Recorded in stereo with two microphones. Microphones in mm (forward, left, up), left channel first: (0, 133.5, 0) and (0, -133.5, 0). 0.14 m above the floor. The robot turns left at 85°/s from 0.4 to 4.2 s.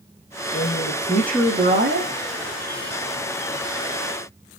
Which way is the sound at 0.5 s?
70° left.